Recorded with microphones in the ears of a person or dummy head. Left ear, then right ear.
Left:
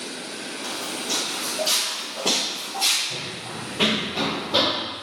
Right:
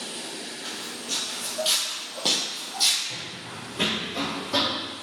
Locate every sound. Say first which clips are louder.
0.6 s footsteps: left 7 dB; 20° right (ahead or behind), 2.0 m; by 3.0 s 55° right (ahead or behind), 3 m
3.1 s running footsteps: left 4 dB; 25° right (ahead or behind), 2.5 m; by 4.8 s 60° right (ahead or behind), 3 m